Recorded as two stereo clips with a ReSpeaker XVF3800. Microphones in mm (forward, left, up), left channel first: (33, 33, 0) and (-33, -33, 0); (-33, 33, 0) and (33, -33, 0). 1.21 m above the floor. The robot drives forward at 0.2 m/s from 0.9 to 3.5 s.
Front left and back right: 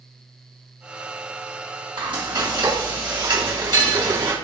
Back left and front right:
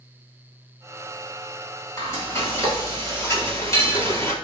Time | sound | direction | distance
2.0 | frying | 165° right | 4 m